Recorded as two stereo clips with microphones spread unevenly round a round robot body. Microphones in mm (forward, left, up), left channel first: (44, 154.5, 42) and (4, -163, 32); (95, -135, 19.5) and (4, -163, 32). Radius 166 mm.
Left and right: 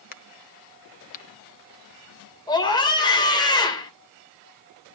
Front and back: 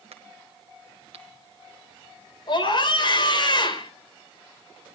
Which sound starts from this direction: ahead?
A scream, at 2.5 s.